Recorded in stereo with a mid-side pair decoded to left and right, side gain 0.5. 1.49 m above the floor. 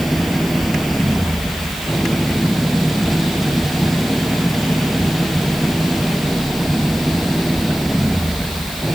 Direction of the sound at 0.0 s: 5° right.